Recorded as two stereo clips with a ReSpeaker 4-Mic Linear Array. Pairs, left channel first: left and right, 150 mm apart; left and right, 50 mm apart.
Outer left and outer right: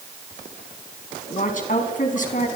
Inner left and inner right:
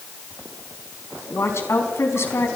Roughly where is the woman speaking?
Left.